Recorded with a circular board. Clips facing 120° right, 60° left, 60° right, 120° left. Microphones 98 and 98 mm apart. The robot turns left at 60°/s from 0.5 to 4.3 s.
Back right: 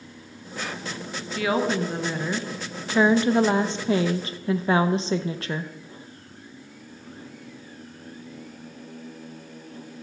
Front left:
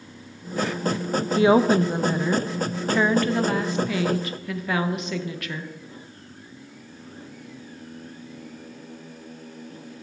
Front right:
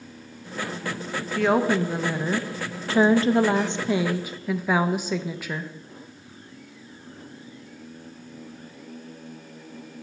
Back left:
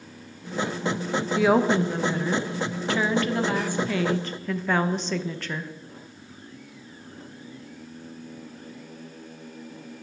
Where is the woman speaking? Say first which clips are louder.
Front left 6 dB, back left 1 dB; 45° left, 0.6 m; by 5.7 s 130° right, 0.6 m.